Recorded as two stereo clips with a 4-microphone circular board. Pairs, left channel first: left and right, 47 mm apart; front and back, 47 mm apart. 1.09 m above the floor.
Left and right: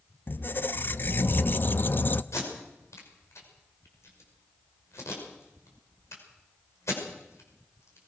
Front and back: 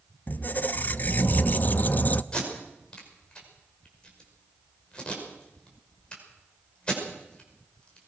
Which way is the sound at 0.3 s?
50° left.